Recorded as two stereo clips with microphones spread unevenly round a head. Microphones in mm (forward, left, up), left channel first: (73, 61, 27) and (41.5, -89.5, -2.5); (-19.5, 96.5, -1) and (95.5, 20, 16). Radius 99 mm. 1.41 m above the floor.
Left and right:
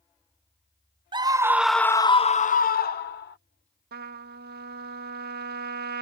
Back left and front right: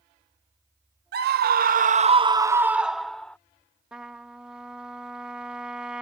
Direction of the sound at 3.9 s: 110° right.